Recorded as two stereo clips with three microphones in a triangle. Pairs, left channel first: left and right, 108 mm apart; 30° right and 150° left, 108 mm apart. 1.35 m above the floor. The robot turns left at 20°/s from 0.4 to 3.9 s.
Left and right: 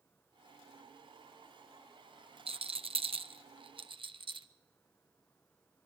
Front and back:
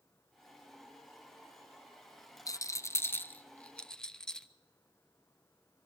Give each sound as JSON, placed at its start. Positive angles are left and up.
{"t": 2.5, "sound": "a rattle", "azimuth_deg": -85, "distance_m": 0.7}